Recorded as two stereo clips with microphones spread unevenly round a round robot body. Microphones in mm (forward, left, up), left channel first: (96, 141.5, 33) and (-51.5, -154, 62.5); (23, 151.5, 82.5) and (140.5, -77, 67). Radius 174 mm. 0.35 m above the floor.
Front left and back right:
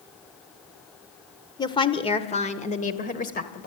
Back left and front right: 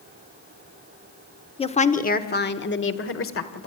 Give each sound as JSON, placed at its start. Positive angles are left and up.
{"t": 1.6, "sound": "a woman speaking", "azimuth_deg": 90, "distance_m": 1.2}